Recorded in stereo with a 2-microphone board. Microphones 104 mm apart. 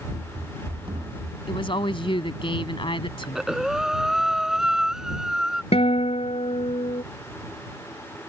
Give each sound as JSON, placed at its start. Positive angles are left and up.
{"t": 0.1, "sound": "running footsteps", "side_deg": -50}
{"t": 1.5, "sound": "a woman speaking", "side_deg": 55}
{"t": 3.2, "sound": "breathing", "side_deg": -5}
{"t": 5.7, "sound": "a guitar", "side_deg": 85}